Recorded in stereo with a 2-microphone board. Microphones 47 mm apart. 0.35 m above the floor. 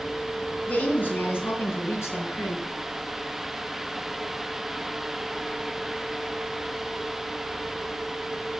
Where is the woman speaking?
30° left (ahead or behind), 3 m; by 2.6 s 70° left (ahead or behind), 3.5 m.